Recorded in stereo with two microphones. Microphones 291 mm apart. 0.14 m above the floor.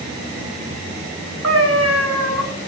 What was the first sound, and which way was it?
A cat meowing, 55° right (ahead or behind).